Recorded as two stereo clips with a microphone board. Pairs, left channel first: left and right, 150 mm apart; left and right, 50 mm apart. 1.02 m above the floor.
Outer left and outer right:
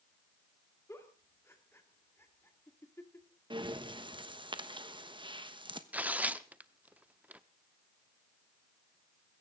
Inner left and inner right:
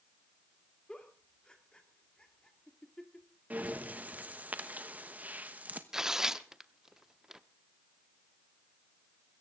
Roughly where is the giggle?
Centre.